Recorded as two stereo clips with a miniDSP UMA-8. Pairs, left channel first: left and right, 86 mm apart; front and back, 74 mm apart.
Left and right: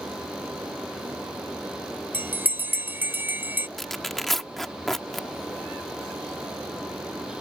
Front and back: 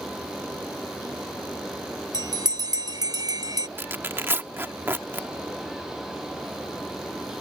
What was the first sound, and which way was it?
A bell, 160° right.